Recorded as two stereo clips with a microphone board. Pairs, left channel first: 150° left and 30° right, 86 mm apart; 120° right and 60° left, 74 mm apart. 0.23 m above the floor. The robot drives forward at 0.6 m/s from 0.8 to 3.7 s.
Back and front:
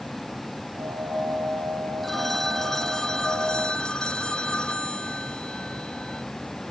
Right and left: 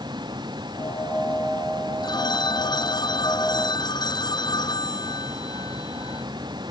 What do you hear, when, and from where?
0.0 s a vehicle: 60° left; by 6.7 s 65° left
2.0 s a phone ringing: 120° right; by 6.2 s 130° right